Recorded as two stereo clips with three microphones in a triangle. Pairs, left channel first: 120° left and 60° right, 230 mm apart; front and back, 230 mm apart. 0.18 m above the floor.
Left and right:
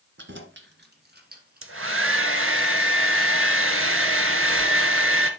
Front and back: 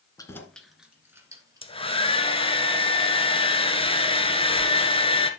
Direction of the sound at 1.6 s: 65° right.